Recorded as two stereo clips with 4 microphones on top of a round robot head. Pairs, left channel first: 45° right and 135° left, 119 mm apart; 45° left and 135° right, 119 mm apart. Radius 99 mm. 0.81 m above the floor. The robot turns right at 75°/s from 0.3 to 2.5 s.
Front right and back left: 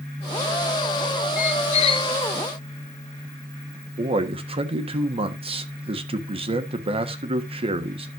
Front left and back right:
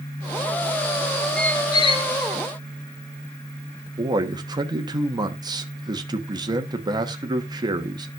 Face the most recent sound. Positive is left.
turn(degrees=170)